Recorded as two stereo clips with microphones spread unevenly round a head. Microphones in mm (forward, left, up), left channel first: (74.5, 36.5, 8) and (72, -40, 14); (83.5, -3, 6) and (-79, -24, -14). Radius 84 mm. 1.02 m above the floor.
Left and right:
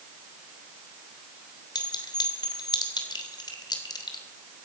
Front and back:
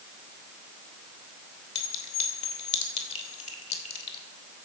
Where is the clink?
65° left, 2.5 m.